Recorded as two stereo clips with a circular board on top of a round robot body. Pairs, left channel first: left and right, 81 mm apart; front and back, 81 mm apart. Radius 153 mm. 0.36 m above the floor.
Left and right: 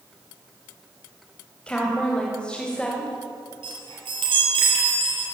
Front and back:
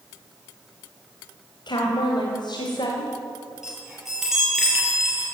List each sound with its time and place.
1.7 s a woman speaking: 15° left, 3.5 m; by 3.1 s 10° left, 3 m
3.6 s a chime: 95° right, 7 m